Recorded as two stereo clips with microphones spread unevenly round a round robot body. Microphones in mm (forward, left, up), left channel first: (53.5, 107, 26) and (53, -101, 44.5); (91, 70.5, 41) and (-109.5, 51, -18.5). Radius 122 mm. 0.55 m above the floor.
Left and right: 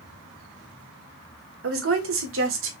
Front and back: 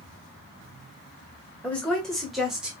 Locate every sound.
1.6 s a woman speaking: 85° right, 1.9 m; by 2.7 s 100° right, 1.5 m